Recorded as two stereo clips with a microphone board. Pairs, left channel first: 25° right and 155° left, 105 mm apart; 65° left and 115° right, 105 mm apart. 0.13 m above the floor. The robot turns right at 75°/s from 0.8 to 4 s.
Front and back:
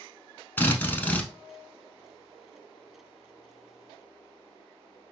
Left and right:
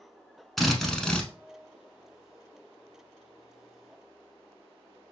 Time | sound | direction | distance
0.6 | a drill | 20° right | 0.7 m